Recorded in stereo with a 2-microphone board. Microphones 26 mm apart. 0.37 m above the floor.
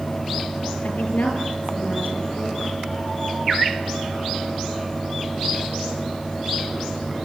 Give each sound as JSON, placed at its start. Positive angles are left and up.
{"t": 0.8, "sound": "a woman speaking", "side_deg": 80, "distance_m": 7.5}